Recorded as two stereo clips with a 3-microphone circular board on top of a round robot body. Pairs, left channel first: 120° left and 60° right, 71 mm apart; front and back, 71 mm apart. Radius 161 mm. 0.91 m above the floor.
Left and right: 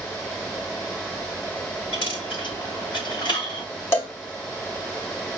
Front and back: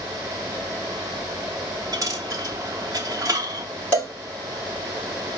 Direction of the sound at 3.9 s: 65° left.